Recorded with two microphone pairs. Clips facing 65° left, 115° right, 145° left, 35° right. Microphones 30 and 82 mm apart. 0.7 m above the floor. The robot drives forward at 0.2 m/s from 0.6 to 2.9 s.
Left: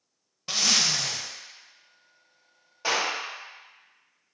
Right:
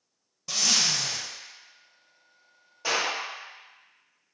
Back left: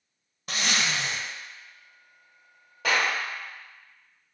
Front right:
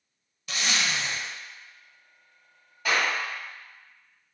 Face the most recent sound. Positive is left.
turn(degrees=140)